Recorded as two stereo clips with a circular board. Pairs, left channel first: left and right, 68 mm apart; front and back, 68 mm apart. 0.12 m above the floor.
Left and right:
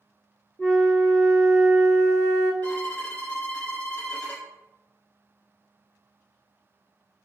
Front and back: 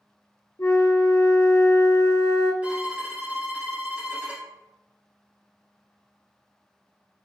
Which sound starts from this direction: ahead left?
A flute, at 0.6 s.